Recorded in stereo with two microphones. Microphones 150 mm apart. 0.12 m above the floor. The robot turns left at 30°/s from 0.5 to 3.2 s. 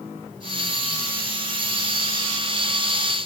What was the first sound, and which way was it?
Only background noise.